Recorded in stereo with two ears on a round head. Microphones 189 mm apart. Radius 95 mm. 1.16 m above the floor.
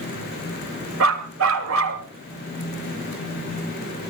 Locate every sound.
1.0 s a dog barking: 75° right (ahead or behind), 1.9 m